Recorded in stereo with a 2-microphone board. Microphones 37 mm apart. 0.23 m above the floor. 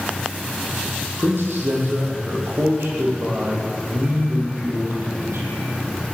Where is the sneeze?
I don't hear a sneeze.